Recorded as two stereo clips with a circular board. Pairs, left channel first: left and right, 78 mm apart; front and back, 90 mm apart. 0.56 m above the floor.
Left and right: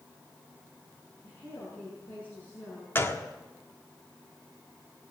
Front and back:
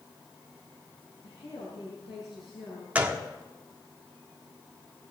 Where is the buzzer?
I don't hear a buzzer.